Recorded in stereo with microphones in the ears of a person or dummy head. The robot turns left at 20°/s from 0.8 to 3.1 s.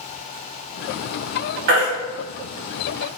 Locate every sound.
1.7 s a baby crying: 50° right (ahead or behind), 0.9 m